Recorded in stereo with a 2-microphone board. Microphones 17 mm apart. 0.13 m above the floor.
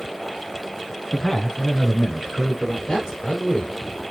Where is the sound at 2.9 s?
25° left (ahead or behind), 2.5 m.